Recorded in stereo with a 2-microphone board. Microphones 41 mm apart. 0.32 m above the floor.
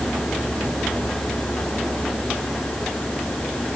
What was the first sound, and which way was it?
Only background noise.